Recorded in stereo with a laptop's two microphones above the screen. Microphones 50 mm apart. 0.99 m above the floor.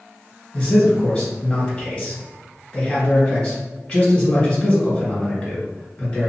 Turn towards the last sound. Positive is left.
turn(degrees=15)  # may be behind; listen again after turning